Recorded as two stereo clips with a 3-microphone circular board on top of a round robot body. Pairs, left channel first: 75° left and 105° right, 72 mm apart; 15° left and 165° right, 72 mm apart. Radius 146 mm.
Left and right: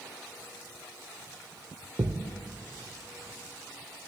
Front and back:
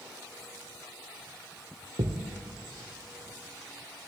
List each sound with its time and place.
2.0 s a thud: 160° right, 1.2 m